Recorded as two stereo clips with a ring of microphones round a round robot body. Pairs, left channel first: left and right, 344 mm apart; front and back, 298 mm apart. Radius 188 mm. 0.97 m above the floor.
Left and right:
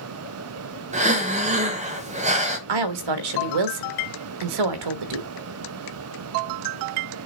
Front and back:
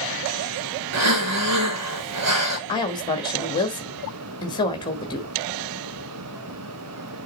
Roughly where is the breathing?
Behind.